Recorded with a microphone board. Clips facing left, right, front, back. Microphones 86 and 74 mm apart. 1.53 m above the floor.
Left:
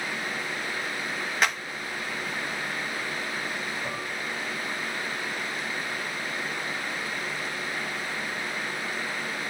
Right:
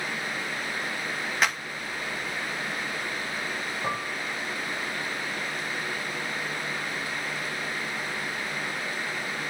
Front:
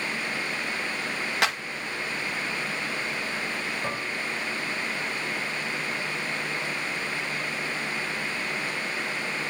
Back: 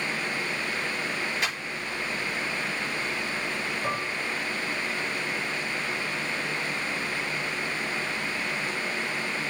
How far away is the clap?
About 1.9 m.